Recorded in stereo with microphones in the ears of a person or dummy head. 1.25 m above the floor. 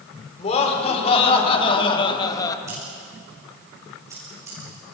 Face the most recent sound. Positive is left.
turn(degrees=-25)  # may be behind; listen again after turning